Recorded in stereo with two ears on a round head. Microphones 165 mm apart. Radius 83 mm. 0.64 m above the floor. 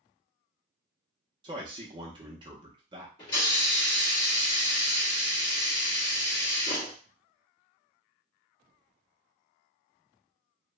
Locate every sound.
1.4 s a man speaking: 25° right (ahead or behind), 0.6 m
3.2 s a hiss: 25° left (ahead or behind), 1.6 m